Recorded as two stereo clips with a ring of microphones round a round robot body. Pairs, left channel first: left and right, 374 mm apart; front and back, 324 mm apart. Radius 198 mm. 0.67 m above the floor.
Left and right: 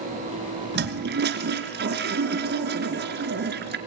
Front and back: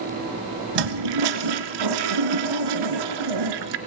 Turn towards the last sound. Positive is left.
turn(degrees=-155)